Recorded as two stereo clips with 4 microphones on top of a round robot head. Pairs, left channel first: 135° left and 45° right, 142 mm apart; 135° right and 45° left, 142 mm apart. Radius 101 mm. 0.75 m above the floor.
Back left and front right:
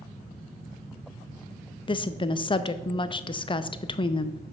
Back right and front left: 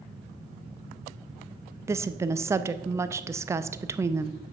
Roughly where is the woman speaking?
Left.